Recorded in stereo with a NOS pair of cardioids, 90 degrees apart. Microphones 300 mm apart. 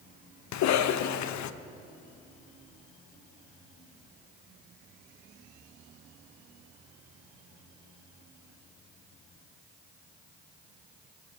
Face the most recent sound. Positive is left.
turn(degrees=65)